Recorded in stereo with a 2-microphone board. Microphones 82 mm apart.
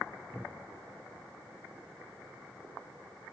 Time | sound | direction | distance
0.3 | a cupboard door | 15° left (ahead or behind) | 3 m